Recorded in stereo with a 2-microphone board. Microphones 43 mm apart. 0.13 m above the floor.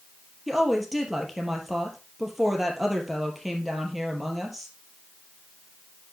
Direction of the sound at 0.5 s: Centre (ahead or behind).